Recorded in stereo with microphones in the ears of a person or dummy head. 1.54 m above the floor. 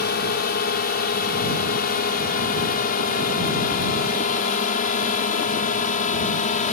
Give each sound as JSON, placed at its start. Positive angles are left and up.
{"t": 0.0, "sound": "a drone", "side_deg": 50}